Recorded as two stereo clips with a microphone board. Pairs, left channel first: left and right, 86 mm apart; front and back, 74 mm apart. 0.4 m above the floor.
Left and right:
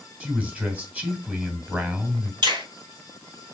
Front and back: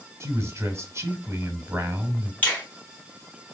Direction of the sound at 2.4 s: 65° right.